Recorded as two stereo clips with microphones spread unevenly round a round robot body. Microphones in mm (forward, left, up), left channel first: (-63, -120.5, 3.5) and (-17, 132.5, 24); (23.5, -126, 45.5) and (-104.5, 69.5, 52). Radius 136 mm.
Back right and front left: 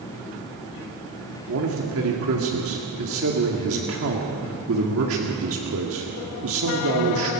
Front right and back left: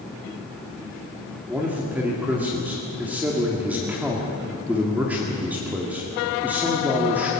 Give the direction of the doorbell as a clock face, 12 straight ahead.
No doorbell in this recording.